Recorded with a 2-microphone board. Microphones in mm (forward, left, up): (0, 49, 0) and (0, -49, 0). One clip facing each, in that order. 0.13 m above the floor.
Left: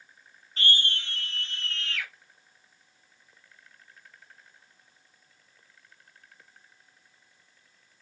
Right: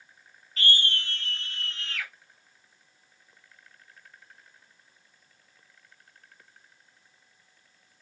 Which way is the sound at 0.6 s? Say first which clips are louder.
Right 1 dB; 30° left (ahead or behind).